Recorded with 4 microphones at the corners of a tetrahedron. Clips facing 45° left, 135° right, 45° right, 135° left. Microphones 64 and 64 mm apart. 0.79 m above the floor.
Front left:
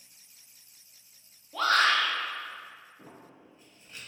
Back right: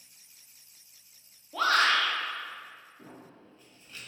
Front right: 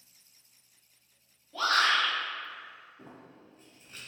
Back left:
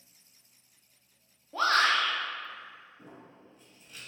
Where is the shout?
140° left, 0.6 m.